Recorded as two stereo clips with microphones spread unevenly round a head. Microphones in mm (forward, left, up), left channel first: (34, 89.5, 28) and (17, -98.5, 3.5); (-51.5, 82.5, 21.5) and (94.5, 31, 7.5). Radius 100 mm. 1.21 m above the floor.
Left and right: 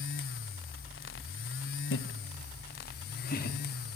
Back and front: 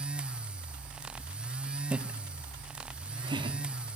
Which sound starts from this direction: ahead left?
Laughter, at 1.9 s.